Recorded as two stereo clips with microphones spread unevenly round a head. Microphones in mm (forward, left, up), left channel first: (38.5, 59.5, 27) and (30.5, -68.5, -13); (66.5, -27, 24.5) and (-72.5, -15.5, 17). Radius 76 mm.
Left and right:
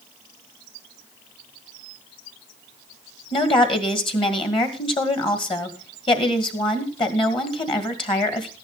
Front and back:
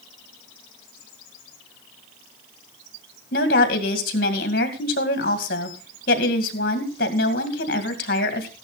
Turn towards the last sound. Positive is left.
turn(degrees=35)